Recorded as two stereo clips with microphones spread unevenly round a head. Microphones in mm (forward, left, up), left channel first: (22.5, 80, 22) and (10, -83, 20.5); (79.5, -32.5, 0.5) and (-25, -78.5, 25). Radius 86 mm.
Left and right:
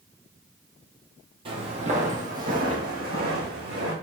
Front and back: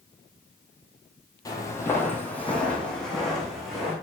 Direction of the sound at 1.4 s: 40° right.